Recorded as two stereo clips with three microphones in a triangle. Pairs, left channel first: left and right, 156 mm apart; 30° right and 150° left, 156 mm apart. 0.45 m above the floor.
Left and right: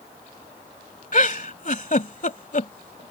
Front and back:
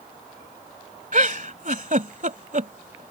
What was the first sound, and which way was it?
A giggle, 120° left.